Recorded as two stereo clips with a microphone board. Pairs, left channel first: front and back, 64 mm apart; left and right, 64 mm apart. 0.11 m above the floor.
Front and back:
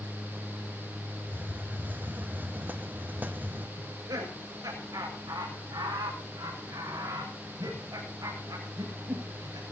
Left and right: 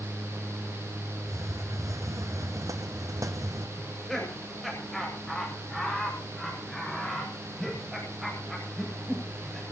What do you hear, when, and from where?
1.3 s a hiss: 120° right, 1.2 m
3.8 s laughter: straight behind, 7.5 m